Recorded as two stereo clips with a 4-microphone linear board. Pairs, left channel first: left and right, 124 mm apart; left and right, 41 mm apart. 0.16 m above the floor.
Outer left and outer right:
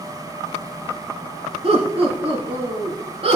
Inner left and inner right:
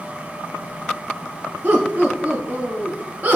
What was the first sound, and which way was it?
Laughter, 50° right (ahead or behind).